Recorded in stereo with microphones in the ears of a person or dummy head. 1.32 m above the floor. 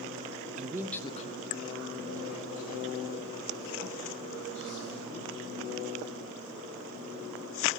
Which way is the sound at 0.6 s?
40° right (ahead or behind).